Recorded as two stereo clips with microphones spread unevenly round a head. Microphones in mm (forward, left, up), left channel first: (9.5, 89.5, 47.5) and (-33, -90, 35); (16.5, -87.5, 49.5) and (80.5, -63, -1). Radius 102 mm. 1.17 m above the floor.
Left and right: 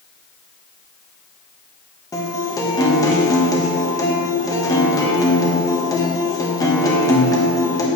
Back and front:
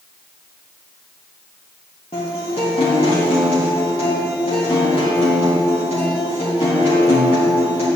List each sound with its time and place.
2.1 s a guitar: 150° left, 1.3 m